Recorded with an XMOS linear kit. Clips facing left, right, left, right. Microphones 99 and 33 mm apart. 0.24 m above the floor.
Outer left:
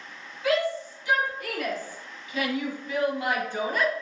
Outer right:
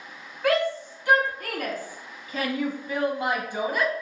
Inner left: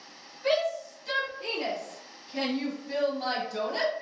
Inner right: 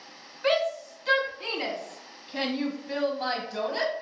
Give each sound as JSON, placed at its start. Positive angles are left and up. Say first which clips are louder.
{"t": 0.4, "sound": "a shout", "louder": "outer right 2 dB, inner right 1 dB", "side_deg": -60, "distance_m": 2.0}